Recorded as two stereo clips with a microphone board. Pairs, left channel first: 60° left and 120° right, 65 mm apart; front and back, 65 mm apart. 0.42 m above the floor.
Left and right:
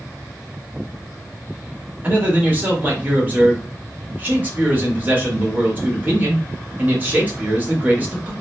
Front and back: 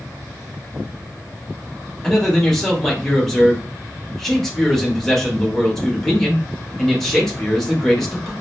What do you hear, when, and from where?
2.0 s a man speaking: 80° right, 1.0 m